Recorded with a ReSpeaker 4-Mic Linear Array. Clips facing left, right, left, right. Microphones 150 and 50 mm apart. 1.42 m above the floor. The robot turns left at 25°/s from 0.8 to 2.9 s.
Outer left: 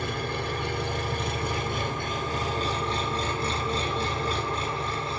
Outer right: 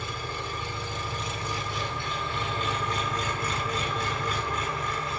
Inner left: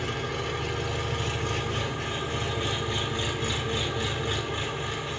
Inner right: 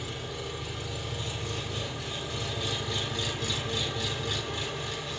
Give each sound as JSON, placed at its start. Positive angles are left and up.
{"t": 0.0, "sound": "an engine running", "azimuth_deg": 90, "distance_m": 1.8}